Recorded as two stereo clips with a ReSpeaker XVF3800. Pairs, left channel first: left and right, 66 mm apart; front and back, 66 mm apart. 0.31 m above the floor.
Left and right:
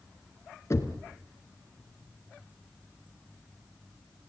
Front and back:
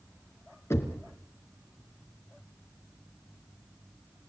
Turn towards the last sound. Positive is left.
turn(degrees=45)